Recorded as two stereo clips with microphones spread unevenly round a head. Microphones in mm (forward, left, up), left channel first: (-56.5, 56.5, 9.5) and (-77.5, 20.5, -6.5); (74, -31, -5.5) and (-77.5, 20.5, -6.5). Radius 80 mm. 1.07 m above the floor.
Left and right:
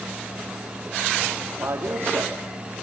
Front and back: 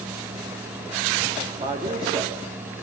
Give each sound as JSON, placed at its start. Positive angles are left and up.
{"t": 1.6, "sound": "a man speaking", "azimuth_deg": -140, "distance_m": 2.5}